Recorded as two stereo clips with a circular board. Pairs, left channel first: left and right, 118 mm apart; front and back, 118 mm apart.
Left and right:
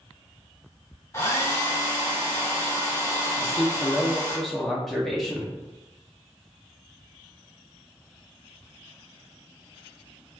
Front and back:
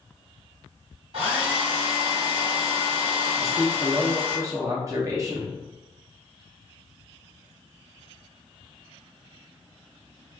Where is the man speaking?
175° left, 0.6 m.